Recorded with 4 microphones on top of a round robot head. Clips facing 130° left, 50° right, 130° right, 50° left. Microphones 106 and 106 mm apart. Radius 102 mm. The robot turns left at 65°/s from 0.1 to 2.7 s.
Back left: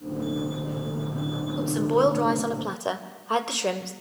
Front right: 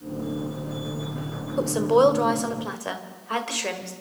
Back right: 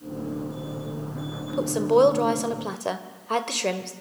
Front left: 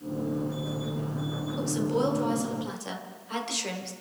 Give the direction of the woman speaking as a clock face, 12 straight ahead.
3 o'clock.